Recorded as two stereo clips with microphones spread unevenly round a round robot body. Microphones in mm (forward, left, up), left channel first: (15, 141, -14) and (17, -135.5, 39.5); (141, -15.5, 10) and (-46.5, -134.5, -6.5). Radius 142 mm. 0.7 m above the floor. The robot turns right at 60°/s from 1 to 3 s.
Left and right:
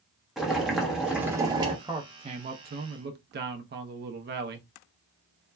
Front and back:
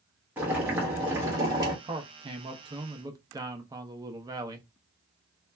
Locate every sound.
0.4 s boiling: 155° left, 0.8 m; by 1.7 s 165° right, 0.8 m
1.8 s a man speaking: straight behind, 0.5 m; by 4.7 s 110° right, 0.5 m